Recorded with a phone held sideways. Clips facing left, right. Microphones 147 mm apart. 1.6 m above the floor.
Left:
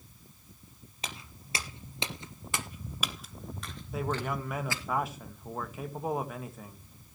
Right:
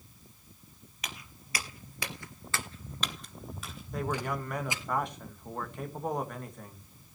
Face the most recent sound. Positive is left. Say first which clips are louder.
# even
turn(degrees=5)  # may be behind; listen again after turning